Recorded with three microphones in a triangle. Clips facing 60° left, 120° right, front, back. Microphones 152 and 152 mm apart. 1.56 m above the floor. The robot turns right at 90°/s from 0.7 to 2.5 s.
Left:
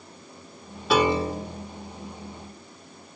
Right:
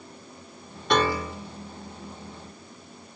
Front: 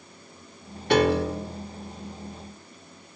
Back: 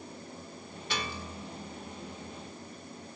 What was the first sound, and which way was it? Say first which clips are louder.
A piano: left 3 dB, front 19 dB; 25° right.